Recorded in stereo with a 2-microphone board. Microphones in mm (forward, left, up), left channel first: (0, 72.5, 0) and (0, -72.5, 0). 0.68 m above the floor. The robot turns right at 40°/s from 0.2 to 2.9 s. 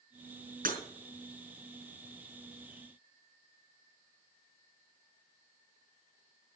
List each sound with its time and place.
0.7 s breaking glass: 75° right (ahead or behind), 5 m; by 0.8 s 70° right (ahead or behind), 5 m